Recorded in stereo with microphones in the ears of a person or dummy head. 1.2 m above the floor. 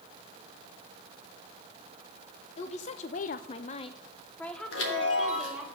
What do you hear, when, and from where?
2.6 s a woman speaking: 40° left (ahead or behind), 0.8 m; by 5.7 s 5° right (ahead or behind), 1.4 m
4.7 s a chime: 85° left, 2 m